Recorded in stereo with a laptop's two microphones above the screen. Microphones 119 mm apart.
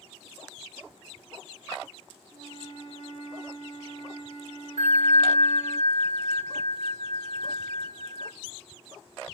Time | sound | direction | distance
2.3 | a flute | 70° right (ahead or behind) | 1.6 m
4.8 | a bell | 75° right (ahead or behind) | 1.3 m